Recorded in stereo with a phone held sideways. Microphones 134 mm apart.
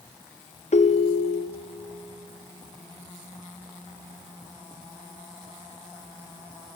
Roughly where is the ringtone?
Left.